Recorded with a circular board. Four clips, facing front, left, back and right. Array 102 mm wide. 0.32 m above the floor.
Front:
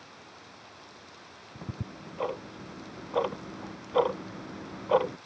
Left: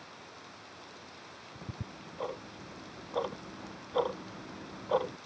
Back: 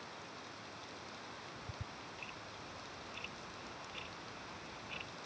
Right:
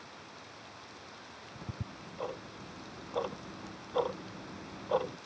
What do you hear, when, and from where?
1.6 s ticking: straight ahead